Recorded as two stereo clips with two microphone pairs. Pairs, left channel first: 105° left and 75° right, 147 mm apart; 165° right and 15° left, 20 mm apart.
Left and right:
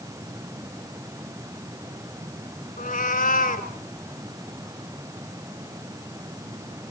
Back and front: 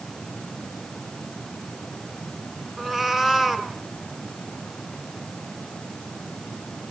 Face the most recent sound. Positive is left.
turn(degrees=120)